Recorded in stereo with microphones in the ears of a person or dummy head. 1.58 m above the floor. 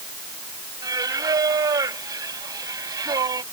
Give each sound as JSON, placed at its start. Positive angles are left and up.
{"t": 0.8, "sound": "singing", "side_deg": -20}